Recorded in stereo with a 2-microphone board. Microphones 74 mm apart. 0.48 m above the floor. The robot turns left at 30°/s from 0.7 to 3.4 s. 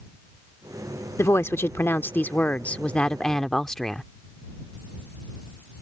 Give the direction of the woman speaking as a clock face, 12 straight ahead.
9 o'clock.